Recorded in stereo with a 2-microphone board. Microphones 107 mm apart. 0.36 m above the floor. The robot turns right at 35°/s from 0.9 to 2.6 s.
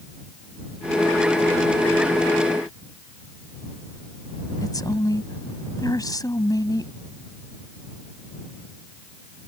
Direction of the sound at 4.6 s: 35° left (ahead or behind).